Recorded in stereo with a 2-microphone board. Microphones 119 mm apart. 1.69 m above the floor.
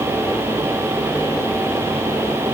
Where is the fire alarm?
No fire alarm in this recording.